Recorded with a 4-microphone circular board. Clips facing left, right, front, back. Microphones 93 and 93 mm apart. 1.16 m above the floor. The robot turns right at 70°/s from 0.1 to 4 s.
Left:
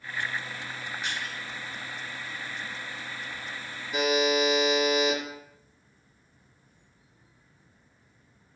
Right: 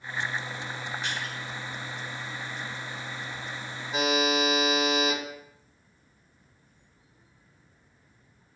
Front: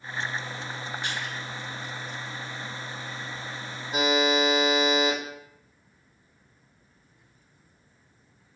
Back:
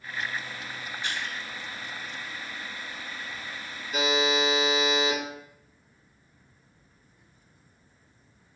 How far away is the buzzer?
About 1.4 m.